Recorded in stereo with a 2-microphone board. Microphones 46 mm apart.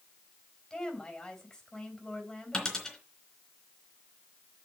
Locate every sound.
0.7 s a woman speaking: 10° left (ahead or behind), 4 m
2.5 s a dropped coin: 15° left (ahead or behind), 3.5 m